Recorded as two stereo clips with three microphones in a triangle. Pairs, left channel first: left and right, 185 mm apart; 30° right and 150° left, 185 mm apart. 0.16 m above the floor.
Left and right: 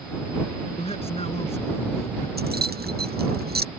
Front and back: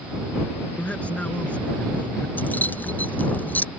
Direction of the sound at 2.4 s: 110° right.